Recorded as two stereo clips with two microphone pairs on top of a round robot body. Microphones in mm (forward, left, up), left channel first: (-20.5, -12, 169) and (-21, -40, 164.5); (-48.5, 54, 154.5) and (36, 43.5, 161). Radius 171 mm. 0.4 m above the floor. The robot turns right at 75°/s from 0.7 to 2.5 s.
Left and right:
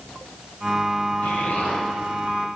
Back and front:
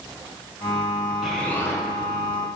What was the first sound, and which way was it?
An explosion, 75° left.